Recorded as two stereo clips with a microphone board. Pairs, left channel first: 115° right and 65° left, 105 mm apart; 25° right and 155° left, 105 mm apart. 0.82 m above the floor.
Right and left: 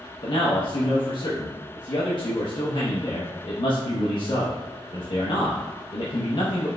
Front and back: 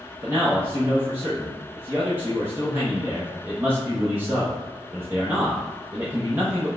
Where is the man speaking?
135° right, 0.6 m.